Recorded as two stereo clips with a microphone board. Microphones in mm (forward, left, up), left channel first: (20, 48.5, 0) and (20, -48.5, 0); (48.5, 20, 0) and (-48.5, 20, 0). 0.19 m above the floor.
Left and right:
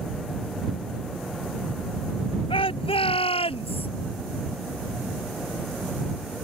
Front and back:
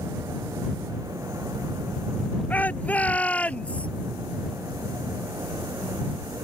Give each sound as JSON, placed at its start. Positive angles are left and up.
{"t": 2.5, "sound": "a shout", "azimuth_deg": 75}